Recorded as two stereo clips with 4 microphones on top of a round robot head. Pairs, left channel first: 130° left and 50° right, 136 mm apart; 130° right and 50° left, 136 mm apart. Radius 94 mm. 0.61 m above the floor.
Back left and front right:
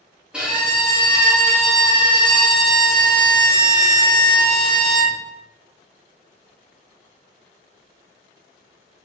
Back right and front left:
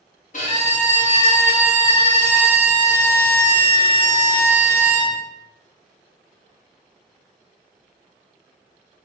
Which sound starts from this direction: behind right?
A violin, at 0.3 s.